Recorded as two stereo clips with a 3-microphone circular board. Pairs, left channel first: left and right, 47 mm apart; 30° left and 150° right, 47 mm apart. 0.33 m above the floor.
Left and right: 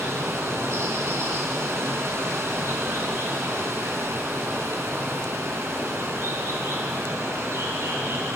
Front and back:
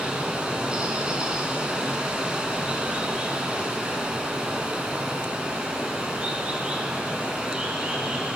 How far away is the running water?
About 3 m.